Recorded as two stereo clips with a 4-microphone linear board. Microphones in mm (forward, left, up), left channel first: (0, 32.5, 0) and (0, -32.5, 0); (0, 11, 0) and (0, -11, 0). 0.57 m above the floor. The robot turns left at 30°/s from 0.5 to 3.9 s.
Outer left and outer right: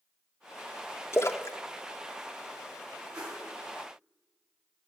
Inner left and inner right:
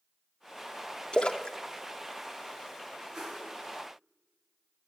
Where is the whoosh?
20° right (ahead or behind), 4 m; by 3.5 s 10° right (ahead or behind), 4 m.